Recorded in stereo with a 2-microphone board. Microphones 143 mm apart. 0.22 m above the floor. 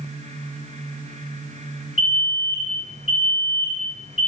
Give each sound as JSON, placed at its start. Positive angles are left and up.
{"t": 2.0, "sound": "an alarm", "side_deg": -55, "distance_m": 1.3}